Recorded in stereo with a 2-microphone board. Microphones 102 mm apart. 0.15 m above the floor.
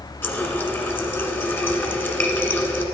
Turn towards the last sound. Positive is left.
turn(degrees=20)  # may be behind; listen again after turning